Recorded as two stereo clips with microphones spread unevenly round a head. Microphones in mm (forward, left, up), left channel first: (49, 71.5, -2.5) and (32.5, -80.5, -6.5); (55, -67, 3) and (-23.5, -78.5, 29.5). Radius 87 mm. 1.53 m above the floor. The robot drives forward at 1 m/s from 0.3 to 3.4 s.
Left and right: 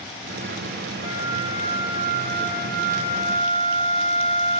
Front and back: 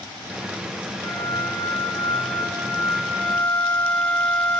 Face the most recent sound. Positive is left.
turn(degrees=-60)